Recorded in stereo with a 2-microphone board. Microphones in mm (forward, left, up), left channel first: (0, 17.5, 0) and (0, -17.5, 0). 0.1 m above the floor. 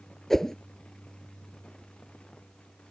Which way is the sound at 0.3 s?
10° left (ahead or behind).